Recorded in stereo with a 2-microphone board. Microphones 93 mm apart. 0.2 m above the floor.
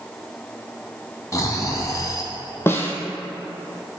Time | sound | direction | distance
1.3 | snoring | 35° left (ahead or behind) | 1.4 m
2.7 | a snare drum | 25° left (ahead or behind) | 1.3 m